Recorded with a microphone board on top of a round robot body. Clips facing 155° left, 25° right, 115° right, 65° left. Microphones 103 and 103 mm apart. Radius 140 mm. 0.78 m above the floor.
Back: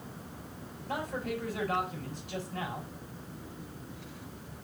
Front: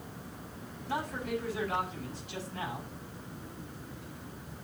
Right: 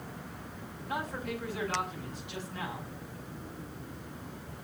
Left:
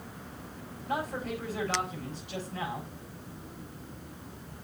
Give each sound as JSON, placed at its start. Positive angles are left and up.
{"t": 0.9, "sound": "a man speaking", "azimuth_deg": 120, "distance_m": 5.5}